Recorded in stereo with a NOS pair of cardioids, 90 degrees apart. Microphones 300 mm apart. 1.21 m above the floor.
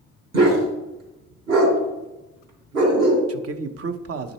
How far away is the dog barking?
About 3 m.